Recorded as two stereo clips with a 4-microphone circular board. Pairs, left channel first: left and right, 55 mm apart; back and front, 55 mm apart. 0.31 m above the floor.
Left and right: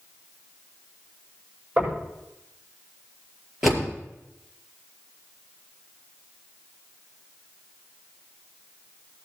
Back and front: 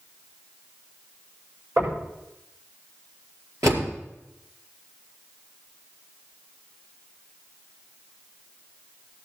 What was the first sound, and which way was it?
Knocking, 25° right.